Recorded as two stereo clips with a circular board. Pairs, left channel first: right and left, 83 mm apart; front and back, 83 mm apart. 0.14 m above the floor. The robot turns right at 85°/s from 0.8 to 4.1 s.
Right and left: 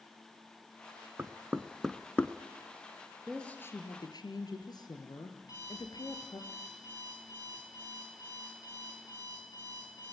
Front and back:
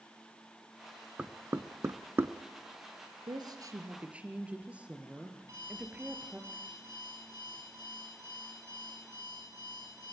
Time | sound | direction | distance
1.2 | knocking | 125° left | 0.9 m
3.3 | a woman speaking | straight behind | 2.5 m
5.4 | an alarm clock | 130° right | 9 m